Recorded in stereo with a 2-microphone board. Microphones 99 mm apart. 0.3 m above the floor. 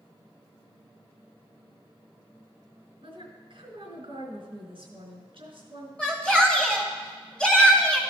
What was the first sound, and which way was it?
A woman speaking, 65° right (ahead or behind).